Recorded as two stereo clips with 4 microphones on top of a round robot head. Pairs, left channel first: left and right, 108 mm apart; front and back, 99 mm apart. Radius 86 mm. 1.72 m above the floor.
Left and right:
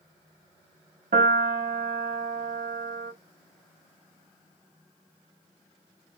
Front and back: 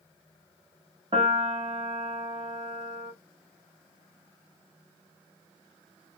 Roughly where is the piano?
Behind right.